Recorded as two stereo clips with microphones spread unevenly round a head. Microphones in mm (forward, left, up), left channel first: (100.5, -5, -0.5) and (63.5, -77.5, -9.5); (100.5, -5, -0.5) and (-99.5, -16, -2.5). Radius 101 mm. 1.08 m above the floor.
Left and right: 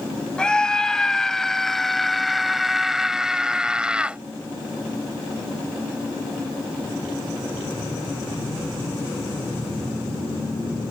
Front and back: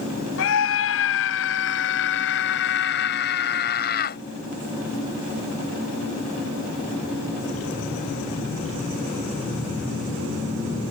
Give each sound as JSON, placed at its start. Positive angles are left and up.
{"t": 0.4, "sound": "a scream", "azimuth_deg": -15}